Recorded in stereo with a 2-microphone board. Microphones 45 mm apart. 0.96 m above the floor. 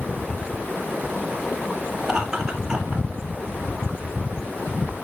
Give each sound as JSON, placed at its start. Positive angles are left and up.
{"t": 2.0, "sound": "laughter", "side_deg": 0, "distance_m": 2.5}